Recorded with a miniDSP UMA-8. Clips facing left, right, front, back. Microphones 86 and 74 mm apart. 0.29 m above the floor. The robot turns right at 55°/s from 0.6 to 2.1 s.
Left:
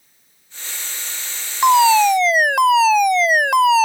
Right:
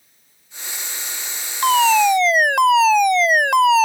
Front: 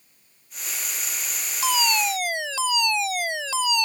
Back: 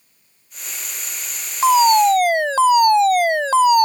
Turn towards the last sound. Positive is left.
turn(degrees=180)